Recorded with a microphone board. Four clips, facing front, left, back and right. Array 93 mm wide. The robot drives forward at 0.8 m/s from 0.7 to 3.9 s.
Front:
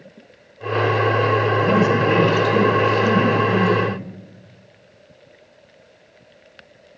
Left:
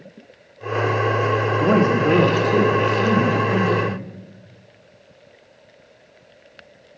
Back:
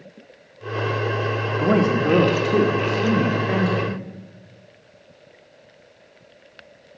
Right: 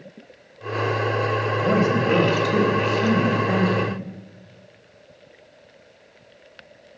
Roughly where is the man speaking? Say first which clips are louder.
Left 3 dB, front 2 dB; behind left.